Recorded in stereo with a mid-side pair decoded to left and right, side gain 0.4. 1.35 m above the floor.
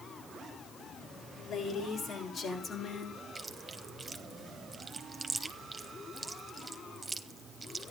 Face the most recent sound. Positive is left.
turn(degrees=-25)